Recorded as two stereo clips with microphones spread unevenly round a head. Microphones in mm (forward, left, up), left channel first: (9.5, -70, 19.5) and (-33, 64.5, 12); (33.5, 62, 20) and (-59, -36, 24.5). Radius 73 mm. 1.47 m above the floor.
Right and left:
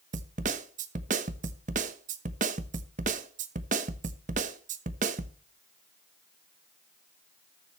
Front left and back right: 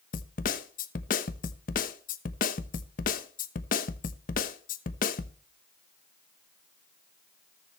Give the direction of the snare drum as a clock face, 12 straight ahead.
10 o'clock.